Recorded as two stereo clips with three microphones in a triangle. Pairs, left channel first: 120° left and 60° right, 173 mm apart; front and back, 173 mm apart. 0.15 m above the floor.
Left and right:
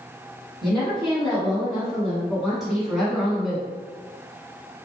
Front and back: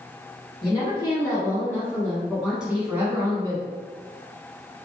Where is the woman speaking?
35° left, 1.7 m; by 3.7 s 145° right, 1.6 m.